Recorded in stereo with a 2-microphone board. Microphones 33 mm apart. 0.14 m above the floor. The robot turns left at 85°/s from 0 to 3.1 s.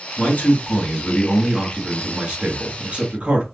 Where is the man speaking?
115° left, 1.9 m; by 3.5 s 135° right, 1.9 m.